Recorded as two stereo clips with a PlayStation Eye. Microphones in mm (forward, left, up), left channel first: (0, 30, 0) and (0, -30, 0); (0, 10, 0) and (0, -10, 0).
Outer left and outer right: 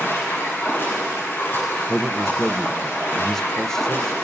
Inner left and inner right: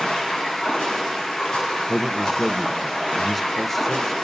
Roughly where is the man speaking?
Centre.